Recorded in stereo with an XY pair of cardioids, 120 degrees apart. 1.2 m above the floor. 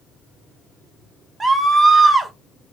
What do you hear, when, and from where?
1.4 s a scream: 25° right, 0.9 m